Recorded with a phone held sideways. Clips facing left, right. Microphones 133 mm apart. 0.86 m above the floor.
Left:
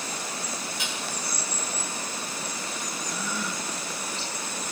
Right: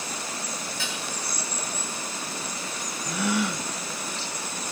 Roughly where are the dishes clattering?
Centre.